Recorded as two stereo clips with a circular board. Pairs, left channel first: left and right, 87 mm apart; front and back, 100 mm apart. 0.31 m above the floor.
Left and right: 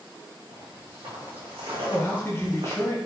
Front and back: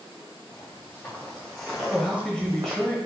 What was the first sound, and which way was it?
Footsteps, 65° right.